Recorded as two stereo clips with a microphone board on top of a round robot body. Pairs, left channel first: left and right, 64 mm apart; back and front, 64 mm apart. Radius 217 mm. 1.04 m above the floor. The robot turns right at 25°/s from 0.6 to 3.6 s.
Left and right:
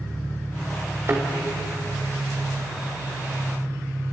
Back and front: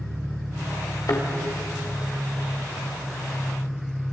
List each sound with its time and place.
0.0 s an engine running: 15° left, 7.5 m; by 4.1 s 90° left, 7.5 m
1.1 s a thud: 140° right, 2.5 m